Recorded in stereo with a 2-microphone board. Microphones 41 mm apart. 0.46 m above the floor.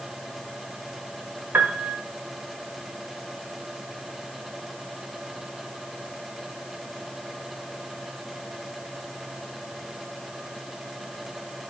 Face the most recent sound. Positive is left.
turn(degrees=-45)  # may be behind; listen again after turning